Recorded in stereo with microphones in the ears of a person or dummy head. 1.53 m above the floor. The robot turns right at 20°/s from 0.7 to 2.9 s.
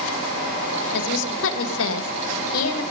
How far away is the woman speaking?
About 2 m.